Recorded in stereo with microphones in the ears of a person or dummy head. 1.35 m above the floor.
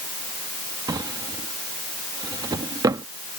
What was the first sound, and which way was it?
A drawer, 20° right (ahead or behind).